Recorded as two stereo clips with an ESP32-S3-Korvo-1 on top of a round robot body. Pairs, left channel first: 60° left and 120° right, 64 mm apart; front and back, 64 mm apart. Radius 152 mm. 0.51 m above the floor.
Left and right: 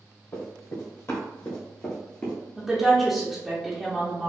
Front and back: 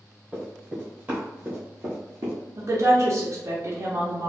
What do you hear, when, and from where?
0.3 s running footsteps: 105° left, 1.6 m; by 2.4 s 140° left, 0.7 m
2.6 s a woman speaking: 155° left, 0.9 m